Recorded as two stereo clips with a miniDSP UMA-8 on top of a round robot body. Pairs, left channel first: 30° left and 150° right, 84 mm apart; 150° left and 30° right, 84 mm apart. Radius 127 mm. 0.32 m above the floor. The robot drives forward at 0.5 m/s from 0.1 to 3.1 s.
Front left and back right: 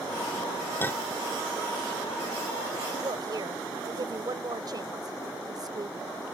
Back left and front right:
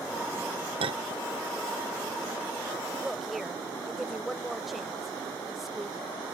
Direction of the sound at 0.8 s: 35° right.